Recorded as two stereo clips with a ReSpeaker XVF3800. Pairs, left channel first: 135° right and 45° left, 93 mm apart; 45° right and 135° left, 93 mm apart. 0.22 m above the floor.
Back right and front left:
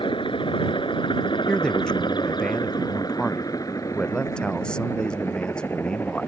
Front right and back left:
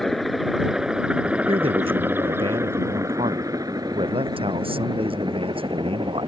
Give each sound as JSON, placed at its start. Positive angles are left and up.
{"t": 0.0, "sound": "a helicopter", "azimuth_deg": -130}
{"t": 1.5, "sound": "a man speaking", "azimuth_deg": 145}